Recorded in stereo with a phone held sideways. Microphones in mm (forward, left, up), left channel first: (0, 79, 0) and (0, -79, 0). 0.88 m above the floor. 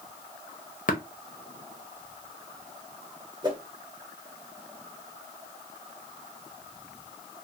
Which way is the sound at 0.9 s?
60° left (ahead or behind).